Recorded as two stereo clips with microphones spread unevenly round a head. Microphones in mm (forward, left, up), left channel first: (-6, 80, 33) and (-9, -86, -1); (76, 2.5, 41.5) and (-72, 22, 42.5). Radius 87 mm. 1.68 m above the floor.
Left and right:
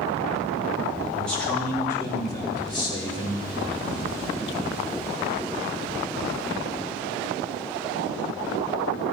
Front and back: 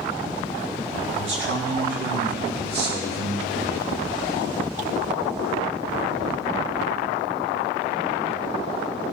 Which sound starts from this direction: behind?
A man speaking, at 1.1 s.